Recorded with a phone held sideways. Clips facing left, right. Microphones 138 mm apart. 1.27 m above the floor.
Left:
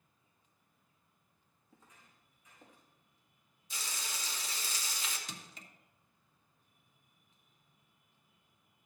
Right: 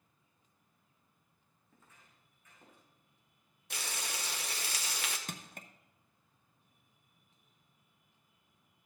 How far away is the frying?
About 1.2 m.